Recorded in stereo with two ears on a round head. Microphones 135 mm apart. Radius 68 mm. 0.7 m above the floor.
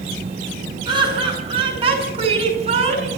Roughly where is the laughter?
Right.